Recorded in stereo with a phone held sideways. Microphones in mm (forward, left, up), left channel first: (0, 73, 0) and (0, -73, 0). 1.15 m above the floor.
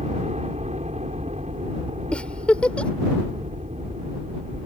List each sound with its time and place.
0.0 s a helicopter: 55° right (ahead or behind)
2.1 s a giggle: 10° left (ahead or behind)